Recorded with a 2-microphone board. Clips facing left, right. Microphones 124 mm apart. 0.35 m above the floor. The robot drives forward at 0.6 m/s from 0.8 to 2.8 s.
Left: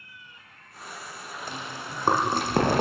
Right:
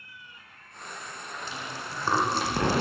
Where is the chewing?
45° left (ahead or behind), 9.5 m.